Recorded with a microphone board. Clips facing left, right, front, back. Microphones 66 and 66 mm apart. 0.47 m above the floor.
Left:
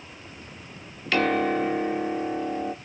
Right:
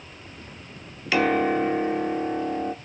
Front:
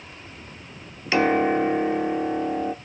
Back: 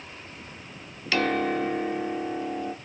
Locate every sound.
1.1 s a piano: 15° right, 0.6 m